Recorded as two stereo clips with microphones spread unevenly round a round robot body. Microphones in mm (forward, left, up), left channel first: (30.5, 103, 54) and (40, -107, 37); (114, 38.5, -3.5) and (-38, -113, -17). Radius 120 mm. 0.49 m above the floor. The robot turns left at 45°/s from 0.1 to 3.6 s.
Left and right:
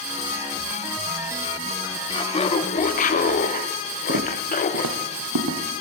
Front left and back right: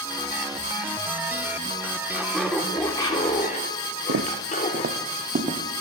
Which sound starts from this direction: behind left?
Laughter, at 2.1 s.